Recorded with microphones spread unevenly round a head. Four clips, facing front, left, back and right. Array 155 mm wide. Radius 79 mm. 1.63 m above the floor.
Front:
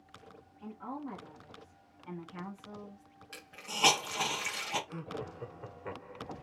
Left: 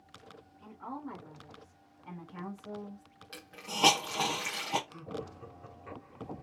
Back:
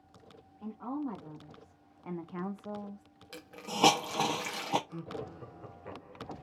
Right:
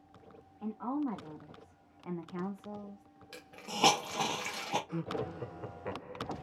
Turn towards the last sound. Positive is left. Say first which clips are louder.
# right 5 dB, even
turn(degrees=-60)